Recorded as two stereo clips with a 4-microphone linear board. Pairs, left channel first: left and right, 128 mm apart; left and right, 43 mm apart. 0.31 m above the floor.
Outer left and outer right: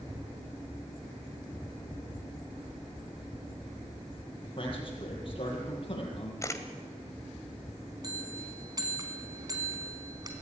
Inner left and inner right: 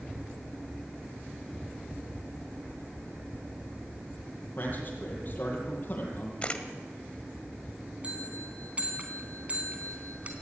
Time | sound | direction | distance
4.6 | a man speaking | 40° left (ahead or behind) | 7 m
6.4 | a camera shutter | 25° left (ahead or behind) | 1.8 m
8.0 | a bell | 30° right (ahead or behind) | 3 m